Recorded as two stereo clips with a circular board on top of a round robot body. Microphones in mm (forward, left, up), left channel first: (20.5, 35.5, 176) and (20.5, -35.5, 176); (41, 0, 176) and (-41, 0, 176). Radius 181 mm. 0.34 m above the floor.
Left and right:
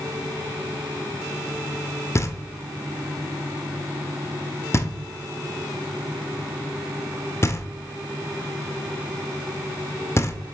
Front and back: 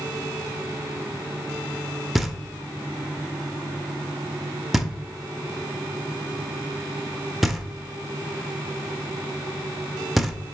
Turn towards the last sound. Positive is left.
turn(degrees=95)